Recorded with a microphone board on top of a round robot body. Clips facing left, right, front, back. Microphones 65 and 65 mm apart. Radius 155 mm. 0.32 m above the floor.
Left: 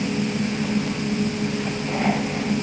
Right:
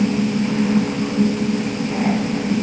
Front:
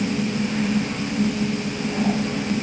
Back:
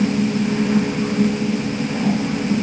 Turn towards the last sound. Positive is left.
No sound to turn to.